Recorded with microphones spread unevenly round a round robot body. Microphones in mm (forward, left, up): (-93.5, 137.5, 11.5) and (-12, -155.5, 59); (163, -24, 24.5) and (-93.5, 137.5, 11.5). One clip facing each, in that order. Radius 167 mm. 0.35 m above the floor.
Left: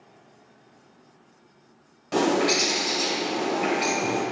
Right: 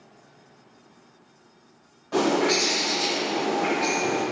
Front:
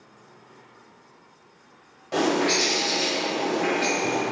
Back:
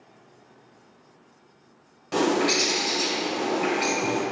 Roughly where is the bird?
Left.